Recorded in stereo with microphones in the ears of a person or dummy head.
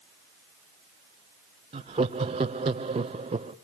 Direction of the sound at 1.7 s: 30° right (ahead or behind).